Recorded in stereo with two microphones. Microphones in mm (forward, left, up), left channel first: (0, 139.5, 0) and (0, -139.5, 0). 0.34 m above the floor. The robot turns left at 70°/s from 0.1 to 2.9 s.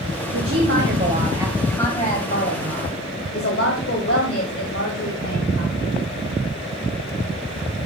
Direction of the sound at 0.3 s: 90° right.